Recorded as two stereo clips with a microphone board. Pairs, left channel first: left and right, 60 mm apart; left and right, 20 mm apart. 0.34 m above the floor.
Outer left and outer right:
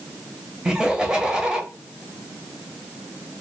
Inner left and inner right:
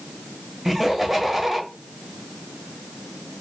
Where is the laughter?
15° right (ahead or behind), 1.2 m.